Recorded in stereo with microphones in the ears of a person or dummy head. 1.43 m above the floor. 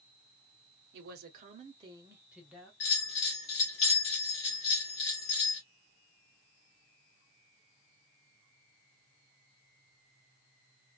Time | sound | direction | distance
0.9 | a woman speaking | 65° right (ahead or behind) | 0.8 m
2.8 | a bell | 65° left (ahead or behind) | 1.3 m